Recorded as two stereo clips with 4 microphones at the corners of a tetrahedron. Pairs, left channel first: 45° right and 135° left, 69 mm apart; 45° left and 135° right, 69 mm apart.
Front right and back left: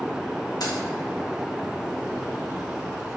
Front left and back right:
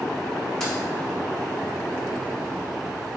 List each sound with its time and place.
0.6 s keys jangling: 40° right, 1.7 m